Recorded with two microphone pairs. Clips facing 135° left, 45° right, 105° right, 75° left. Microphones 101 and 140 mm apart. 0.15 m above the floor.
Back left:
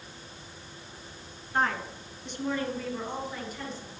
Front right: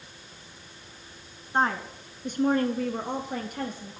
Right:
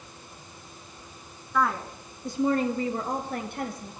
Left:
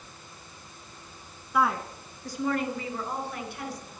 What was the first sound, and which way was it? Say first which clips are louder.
A woman speaking: front right 3 dB, even; straight ahead.